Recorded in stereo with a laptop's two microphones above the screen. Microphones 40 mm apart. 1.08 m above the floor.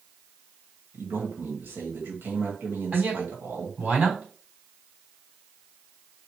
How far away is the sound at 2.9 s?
About 3 m.